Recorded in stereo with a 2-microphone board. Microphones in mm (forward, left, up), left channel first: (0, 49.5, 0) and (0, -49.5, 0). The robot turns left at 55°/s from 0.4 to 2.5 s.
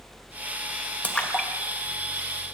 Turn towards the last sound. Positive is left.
turn(degrees=-35)  # may be behind; listen again after turning